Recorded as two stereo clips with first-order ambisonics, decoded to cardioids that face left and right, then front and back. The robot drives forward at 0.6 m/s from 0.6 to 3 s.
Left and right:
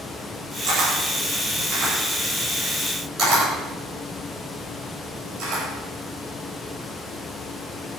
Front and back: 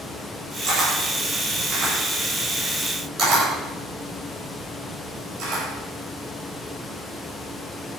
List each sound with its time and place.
0.7 s a camera shutter: 140° right, 8.5 m; by 5.6 s 145° right, 10 m